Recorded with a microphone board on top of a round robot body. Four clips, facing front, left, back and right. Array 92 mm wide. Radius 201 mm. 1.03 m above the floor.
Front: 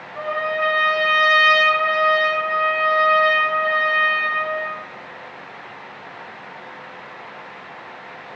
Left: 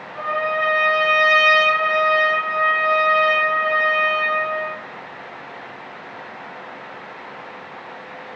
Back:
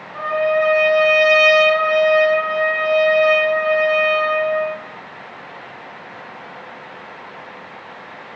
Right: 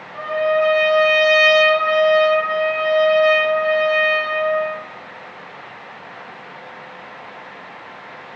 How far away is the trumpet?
About 1.3 m.